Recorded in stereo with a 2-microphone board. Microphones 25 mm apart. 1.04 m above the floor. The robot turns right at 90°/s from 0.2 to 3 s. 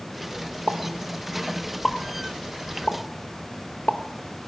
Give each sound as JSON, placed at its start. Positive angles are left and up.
{"t": 0.7, "sound": "a pop", "side_deg": -65, "distance_m": 1.1}